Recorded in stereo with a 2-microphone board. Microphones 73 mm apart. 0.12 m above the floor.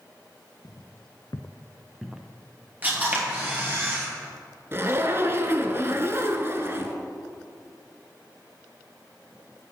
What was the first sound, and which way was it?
Footsteps, 75° left (ahead or behind).